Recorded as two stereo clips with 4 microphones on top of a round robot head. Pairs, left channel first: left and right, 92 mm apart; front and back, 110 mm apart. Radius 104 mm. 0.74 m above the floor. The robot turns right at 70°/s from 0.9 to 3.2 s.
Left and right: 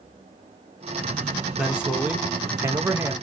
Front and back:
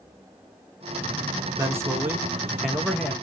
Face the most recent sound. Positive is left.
turn(degrees=-55)